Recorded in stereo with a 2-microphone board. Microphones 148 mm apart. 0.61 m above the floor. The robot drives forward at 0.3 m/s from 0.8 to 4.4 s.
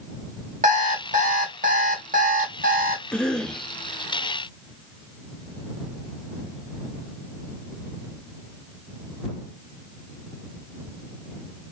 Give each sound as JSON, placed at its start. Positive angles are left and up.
{"t": 0.6, "sound": "an alarm clock", "side_deg": -55, "distance_m": 2.0}
{"t": 3.1, "sound": "a cough", "side_deg": 5, "distance_m": 0.6}